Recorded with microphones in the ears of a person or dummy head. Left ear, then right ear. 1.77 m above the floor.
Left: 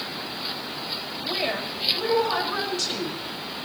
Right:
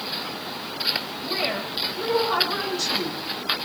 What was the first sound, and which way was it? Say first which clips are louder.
A woman speaking: left 2 dB; 10° left (ahead or behind).